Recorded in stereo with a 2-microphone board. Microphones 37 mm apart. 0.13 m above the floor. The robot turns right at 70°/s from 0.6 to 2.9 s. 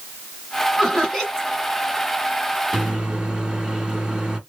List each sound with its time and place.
0.8 s laughter: centre (ahead or behind), 1.6 m; by 1.5 s 15° right (ahead or behind), 1.6 m
2.7 s a microwave: 15° right (ahead or behind), 1.0 m